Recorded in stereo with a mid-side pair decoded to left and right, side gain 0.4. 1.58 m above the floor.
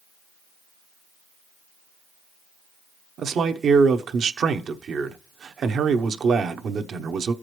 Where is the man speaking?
60° right, 0.9 m.